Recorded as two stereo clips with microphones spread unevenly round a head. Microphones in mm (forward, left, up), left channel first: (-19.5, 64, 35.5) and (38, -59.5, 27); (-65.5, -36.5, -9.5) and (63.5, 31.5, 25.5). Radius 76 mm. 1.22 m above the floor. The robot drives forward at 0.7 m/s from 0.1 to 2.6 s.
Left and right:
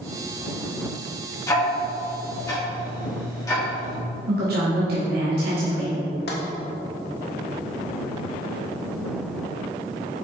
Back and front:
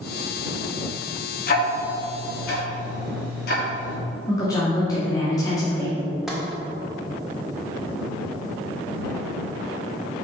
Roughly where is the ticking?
Behind.